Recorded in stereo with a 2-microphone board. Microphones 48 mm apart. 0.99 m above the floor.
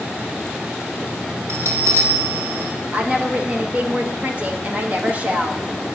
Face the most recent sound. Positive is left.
turn(degrees=-30)  # may be behind; listen again after turning